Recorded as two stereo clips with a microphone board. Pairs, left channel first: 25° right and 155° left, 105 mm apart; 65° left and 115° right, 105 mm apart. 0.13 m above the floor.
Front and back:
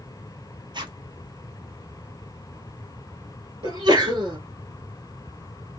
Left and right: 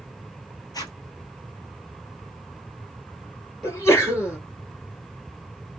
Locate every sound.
0.7 s a zipper: 115° left, 1.1 m
3.6 s a sneeze: 120° left, 2 m